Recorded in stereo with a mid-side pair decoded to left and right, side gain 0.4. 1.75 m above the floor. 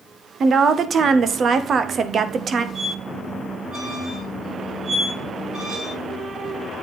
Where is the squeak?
60° right, 5 m.